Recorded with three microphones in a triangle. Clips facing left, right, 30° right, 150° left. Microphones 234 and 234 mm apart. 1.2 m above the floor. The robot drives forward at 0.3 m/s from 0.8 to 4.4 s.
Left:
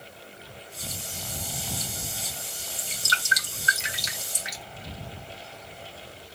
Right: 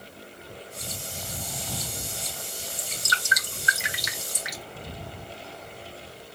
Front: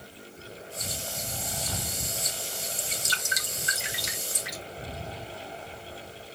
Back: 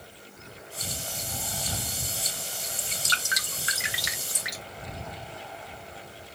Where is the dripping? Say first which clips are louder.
Right 2 dB, front 1 dB; 145° left, 1.6 m; by 4.6 s 155° left, 2 m.